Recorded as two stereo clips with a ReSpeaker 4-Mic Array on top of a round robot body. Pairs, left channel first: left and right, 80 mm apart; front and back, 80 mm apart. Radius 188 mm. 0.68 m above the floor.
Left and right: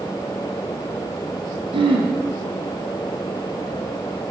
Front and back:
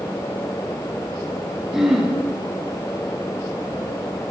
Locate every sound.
1.7 s throat clearing: 95° right, 4.5 m